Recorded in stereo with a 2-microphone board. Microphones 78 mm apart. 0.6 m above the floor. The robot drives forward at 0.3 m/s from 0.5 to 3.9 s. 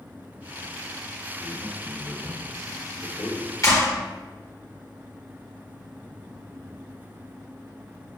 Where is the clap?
45° left (ahead or behind), 1.7 m.